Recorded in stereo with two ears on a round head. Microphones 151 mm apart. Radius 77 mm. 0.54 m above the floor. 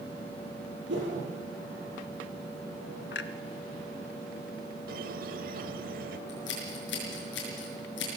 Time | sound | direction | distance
0.9 | a whoosh | 85° right | 5.5 m
3.1 | a clunk | 65° left (ahead or behind) | 0.9 m
4.9 | a squeak | 50° right (ahead or behind) | 1.2 m
6.3 | scissors | 70° left (ahead or behind) | 6 m